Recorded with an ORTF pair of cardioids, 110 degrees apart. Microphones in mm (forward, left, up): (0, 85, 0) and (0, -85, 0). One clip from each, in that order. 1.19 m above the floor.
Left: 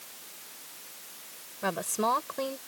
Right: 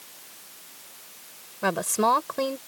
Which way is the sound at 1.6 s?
35° right.